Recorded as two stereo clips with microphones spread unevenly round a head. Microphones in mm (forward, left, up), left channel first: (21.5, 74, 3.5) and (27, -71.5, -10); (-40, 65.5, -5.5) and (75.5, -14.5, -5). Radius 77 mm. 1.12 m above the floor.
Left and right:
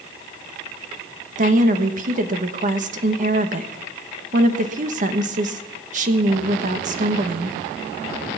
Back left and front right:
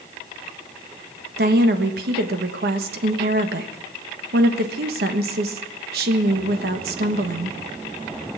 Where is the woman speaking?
60° right, 1.3 m.